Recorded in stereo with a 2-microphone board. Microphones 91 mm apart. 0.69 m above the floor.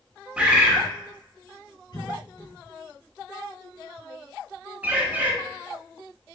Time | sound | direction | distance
0.4 | a bird | 15° right (ahead or behind) | 0.8 m
1.9 | a cough | 60° left (ahead or behind) | 1.6 m
4.8 | a bird | 20° right (ahead or behind) | 0.9 m